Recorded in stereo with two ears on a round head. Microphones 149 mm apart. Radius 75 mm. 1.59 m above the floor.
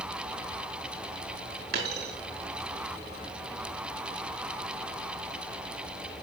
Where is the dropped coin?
70° right (ahead or behind), 5.5 m.